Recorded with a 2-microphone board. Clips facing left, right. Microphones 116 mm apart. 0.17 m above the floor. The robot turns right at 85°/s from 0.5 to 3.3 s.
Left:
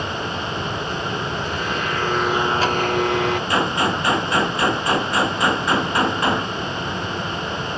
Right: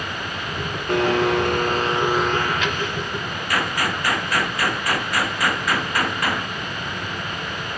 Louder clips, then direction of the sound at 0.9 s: Right 7 dB; 115° right.